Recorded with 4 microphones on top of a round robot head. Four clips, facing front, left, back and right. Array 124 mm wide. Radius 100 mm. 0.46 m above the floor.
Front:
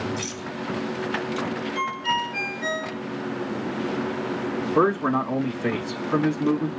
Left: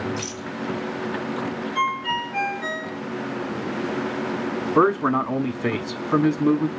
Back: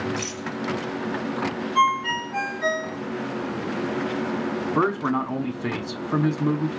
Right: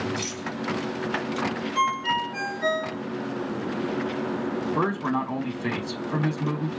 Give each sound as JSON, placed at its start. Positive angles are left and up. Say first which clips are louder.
{"t": 0.2, "sound": "a rattle", "louder": "left 1 dB, back 1 dB", "azimuth_deg": -155, "distance_m": 3.0}
{"t": 1.8, "sound": "a ringtone", "louder": "even, back 7 dB", "azimuth_deg": -175, "distance_m": 4.0}
{"t": 4.8, "sound": "a man speaking", "louder": "left 9 dB, front 3 dB", "azimuth_deg": 90, "distance_m": 1.0}